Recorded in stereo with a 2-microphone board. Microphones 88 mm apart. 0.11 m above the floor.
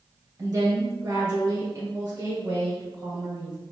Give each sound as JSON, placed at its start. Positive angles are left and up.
{"t": 0.4, "sound": "a woman speaking", "side_deg": -30, "distance_m": 1.9}